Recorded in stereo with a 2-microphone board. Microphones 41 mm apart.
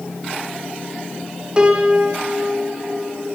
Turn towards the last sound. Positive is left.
turn(degrees=-20)  # may be behind; listen again after turning